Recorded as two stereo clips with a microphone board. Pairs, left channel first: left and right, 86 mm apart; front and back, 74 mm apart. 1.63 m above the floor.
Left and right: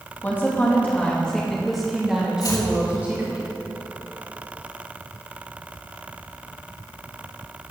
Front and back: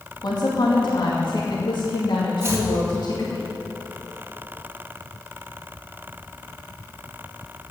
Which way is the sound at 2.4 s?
125° left.